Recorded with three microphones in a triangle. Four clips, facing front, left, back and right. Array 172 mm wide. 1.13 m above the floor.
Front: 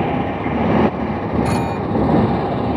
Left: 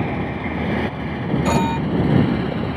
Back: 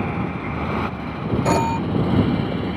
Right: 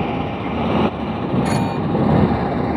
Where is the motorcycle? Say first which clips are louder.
Right 2 dB, front 6 dB; 15° right; by 2.8 s 35° right.